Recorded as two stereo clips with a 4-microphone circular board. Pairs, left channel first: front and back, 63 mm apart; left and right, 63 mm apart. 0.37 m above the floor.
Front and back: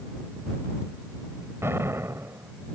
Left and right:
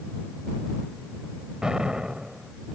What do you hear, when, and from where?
1.6 s an explosion: 165° right